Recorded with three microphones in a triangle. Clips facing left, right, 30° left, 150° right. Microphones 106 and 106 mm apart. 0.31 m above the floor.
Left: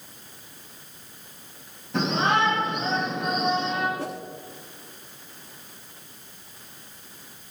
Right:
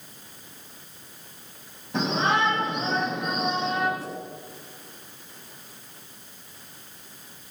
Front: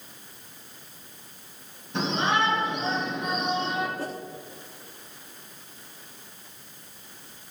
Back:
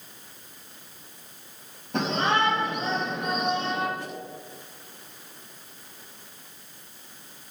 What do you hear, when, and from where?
1.9 s a shout: 175° right, 9 m
4.0 s a whoosh: 80° left, 1.2 m